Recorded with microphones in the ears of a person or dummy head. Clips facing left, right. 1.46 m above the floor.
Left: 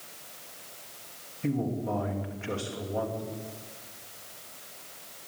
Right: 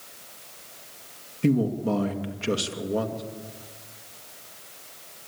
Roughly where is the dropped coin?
No dropped coin in this recording.